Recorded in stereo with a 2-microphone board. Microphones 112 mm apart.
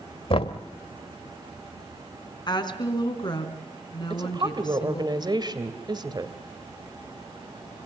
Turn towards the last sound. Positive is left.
turn(degrees=-40)  # may be behind; listen again after turning